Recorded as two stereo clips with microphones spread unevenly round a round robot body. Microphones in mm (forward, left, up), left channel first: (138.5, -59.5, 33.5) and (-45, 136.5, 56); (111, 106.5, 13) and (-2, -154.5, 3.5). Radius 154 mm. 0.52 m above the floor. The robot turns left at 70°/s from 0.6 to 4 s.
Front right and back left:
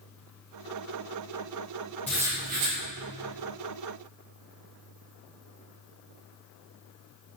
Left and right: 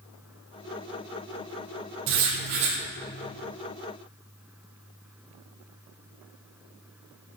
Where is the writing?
135° right, 4.5 m; by 2.8 s 175° left, 4.5 m.